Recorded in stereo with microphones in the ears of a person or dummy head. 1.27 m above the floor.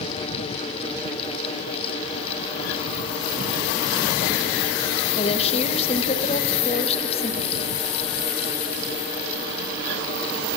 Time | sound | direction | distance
5.2 | a woman speaking | 30° left (ahead or behind) | 0.7 m